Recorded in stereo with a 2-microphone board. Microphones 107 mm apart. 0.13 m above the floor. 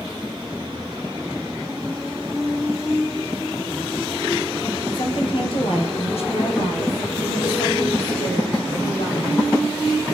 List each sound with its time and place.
4.9 s a woman speaking: 50° left (ahead or behind), 2.5 m; by 10.2 s 60° left (ahead or behind), 7.5 m